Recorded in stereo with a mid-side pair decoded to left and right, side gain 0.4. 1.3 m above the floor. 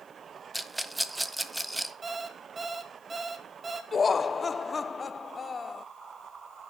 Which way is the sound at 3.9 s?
35° left.